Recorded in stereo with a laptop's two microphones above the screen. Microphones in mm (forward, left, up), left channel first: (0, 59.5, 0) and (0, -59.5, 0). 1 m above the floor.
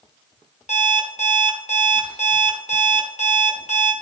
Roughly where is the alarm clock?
Left.